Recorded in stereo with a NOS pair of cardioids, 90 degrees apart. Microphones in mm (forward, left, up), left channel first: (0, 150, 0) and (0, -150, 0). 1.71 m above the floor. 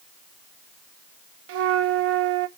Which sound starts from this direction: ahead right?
A flute, at 1.5 s.